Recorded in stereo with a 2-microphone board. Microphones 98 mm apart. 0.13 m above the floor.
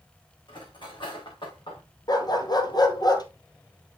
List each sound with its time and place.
0.5 s cutlery clinking: 55° left (ahead or behind), 5.5 m
2.1 s a dog barking: 45° left (ahead or behind), 1.1 m